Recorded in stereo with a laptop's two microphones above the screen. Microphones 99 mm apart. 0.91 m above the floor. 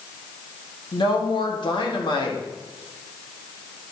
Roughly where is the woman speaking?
Left.